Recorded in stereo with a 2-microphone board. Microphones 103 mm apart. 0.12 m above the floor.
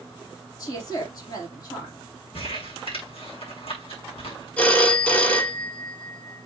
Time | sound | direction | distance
0.6 | a woman speaking | 40° left (ahead or behind) | 4 m
2.3 | crumpling | 70° left (ahead or behind) | 6 m
4.6 | a phone ringing | 10° left (ahead or behind) | 1.6 m